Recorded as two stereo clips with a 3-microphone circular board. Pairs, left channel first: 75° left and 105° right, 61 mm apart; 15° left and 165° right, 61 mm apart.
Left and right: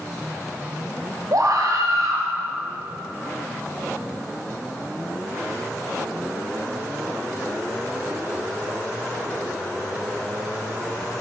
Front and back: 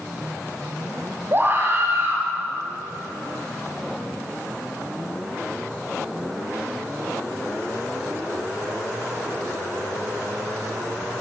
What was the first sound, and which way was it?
A scream, 115° right.